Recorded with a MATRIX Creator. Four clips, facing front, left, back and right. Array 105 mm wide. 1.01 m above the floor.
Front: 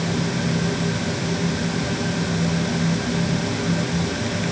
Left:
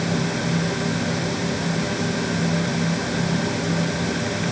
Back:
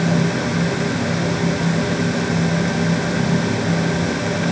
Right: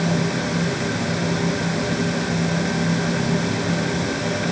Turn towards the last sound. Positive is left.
No sound to turn to.